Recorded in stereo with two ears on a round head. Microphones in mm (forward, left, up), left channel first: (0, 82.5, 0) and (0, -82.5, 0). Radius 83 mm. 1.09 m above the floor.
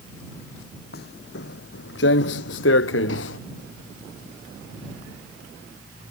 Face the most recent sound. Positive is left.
turn(degrees=75)  # may be behind; listen again after turning